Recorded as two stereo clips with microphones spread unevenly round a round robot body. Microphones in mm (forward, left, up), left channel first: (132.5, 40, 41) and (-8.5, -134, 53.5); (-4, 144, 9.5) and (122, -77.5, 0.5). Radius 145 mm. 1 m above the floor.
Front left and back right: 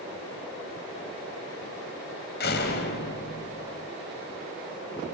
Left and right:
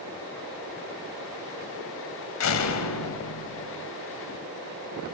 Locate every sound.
2.4 s a door slam: 105° left, 3.5 m